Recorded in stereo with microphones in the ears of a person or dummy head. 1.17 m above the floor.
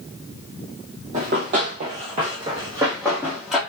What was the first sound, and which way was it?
Running footsteps, 45° right (ahead or behind).